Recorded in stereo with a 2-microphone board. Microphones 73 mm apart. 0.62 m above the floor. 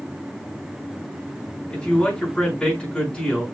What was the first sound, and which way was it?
A man speaking, 10° left (ahead or behind).